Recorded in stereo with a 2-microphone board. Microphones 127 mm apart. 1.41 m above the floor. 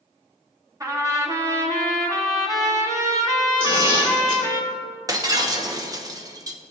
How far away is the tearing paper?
About 2.5 m.